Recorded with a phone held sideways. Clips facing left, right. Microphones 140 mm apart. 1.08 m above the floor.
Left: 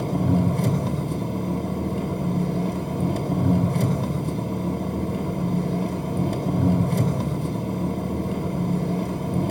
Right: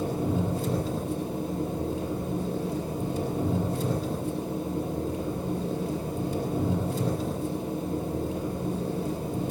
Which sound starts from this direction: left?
An engine running, at 0.0 s.